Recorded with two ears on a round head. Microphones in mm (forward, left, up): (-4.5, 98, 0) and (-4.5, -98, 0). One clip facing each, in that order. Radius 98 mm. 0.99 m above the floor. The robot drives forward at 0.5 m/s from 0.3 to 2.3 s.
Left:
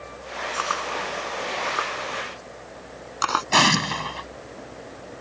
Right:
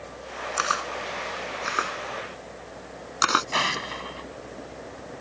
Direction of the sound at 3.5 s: 65° left (ahead or behind).